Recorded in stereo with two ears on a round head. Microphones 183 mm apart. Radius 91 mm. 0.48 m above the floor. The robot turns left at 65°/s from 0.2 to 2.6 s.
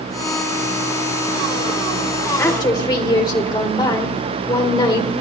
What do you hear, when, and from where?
2.4 s a woman speaking: 10° left (ahead or behind), 1.9 m; by 5.2 s 20° left (ahead or behind), 1.9 m